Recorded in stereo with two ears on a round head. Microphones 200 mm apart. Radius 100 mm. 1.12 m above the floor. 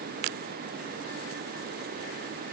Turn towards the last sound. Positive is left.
No sound to turn to.